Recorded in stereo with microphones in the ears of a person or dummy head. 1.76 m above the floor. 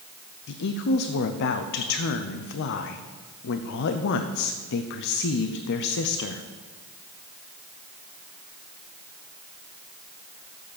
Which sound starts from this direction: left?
A woman speaking, at 0.5 s.